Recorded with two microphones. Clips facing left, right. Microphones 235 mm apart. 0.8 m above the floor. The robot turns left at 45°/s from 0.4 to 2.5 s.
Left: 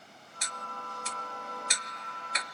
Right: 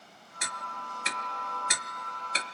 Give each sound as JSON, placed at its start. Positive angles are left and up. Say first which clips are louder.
{"t": 0.4, "sound": "ticking", "louder": "right 1 dB", "side_deg": -60}